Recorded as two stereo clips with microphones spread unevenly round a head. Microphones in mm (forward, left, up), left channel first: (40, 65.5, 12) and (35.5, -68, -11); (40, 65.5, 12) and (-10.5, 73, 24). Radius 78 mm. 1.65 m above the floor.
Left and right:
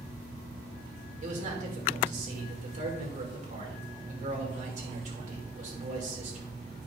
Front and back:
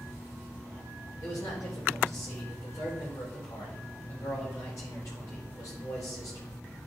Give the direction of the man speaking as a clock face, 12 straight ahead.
2 o'clock.